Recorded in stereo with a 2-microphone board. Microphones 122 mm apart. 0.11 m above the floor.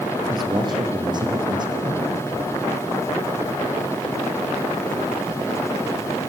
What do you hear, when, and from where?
0.3 s a man speaking: 35° right (ahead or behind), 4.5 m